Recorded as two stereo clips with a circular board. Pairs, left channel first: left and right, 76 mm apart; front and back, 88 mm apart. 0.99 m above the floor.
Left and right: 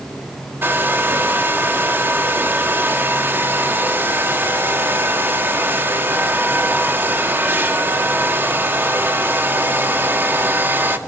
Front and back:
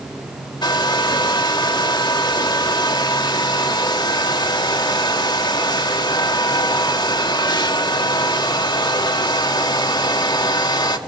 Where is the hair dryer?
30° right, 1.9 m.